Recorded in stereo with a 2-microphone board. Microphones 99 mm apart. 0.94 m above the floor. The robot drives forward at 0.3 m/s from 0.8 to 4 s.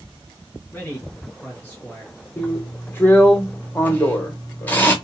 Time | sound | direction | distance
0.7 | a man speaking | 15° left (ahead or behind) | 1.0 m
2.4 | a drill | 15° left (ahead or behind) | 0.7 m